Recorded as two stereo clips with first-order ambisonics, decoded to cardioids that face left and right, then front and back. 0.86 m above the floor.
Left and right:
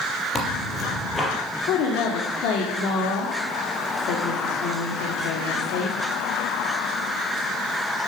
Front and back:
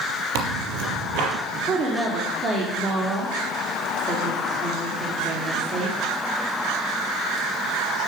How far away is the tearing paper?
About 4 m.